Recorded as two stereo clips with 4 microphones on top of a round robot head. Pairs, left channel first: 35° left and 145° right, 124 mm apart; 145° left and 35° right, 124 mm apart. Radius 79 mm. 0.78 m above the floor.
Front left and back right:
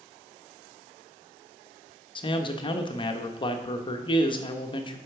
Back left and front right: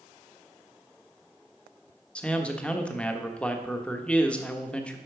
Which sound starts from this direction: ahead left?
A man speaking, at 2.1 s.